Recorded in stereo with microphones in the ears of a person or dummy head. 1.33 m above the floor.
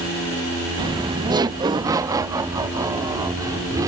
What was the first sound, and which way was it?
Laughter, 25° right (ahead or behind).